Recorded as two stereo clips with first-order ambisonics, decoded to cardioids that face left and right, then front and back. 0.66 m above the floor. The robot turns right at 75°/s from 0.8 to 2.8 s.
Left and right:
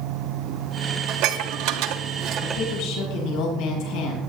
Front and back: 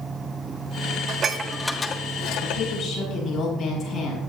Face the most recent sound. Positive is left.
turn(degrees=75)